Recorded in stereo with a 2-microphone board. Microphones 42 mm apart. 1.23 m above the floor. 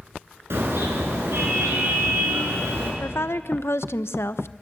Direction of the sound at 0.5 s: 80° right.